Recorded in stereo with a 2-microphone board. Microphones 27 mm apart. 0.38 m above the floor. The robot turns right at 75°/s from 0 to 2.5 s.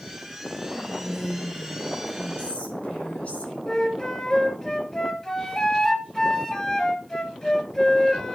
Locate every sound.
0.7 s whispering: 70° right, 7 m; by 3.6 s 65° left, 7 m
3.7 s a flute: 20° left (ahead or behind), 1.5 m